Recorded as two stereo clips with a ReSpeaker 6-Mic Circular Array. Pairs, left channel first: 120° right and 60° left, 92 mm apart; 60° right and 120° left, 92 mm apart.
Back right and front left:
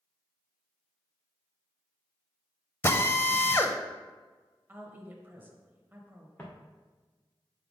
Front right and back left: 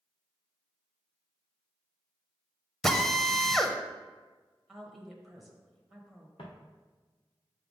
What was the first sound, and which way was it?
A drill, 140° right.